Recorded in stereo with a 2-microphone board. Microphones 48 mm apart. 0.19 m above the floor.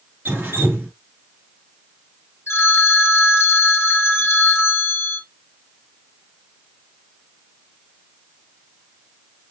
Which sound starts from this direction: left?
A phone ringing, at 2.5 s.